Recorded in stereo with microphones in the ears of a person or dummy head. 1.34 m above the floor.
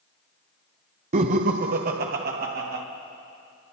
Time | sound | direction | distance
1.1 | laughter | 30° right (ahead or behind) | 0.6 m